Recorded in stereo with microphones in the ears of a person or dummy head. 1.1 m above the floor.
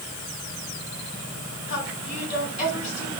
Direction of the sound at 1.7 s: 40° left (ahead or behind).